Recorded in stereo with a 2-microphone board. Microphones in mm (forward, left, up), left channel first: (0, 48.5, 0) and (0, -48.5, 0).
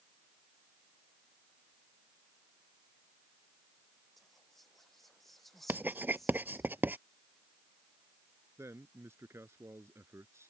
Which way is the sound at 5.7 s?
20° right (ahead or behind).